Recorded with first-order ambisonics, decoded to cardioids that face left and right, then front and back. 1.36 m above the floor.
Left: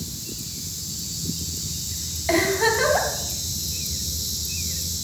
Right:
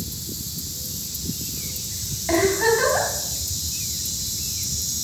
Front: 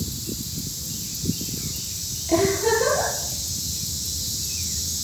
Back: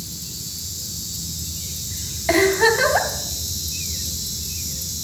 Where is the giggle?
175° left, 3 m.